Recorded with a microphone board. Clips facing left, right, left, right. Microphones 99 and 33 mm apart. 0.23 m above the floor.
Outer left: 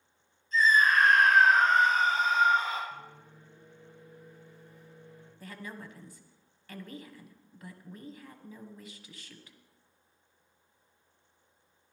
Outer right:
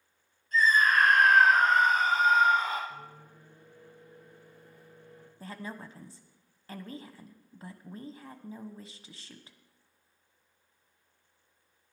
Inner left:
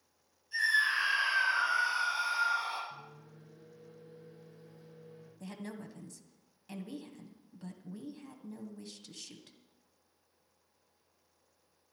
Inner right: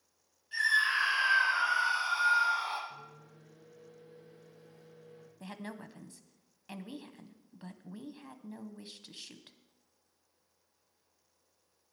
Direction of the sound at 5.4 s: 30° right (ahead or behind).